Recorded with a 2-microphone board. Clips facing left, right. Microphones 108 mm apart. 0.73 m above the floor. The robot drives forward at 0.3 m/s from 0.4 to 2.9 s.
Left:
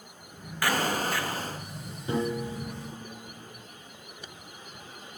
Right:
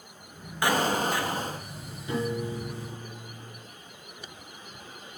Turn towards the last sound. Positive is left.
turn(degrees=40)  # may be behind; listen again after turning